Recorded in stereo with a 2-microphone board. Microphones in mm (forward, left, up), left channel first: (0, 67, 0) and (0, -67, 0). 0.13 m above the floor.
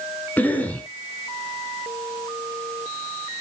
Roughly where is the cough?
Centre.